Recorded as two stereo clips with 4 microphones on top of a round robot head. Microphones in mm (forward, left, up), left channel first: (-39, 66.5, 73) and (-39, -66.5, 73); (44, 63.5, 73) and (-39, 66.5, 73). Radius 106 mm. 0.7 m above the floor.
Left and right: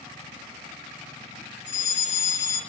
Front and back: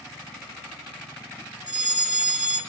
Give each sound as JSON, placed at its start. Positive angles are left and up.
{"t": 1.7, "sound": "a fire alarm", "azimuth_deg": 100, "distance_m": 6.5}